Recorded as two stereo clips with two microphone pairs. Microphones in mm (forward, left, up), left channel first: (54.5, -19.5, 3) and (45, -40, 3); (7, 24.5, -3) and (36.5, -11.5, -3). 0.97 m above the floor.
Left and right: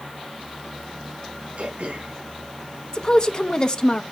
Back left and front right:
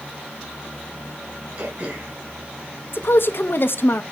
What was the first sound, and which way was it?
Throat clearing, 100° right.